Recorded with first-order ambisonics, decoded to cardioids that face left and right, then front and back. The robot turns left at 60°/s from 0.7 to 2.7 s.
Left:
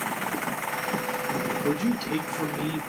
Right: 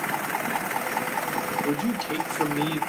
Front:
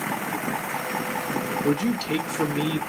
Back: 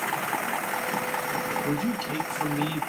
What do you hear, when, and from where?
1.6 s a man speaking: 25° left, 0.9 m; by 2.8 s 35° right, 0.9 m